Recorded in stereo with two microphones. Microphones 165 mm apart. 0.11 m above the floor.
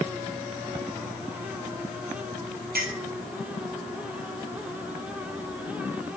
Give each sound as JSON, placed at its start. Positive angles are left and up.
{"t": 2.8, "sound": "a clink", "side_deg": -65, "distance_m": 1.7}